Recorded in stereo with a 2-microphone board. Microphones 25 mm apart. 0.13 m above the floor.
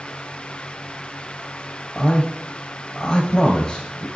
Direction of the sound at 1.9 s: 25° left (ahead or behind).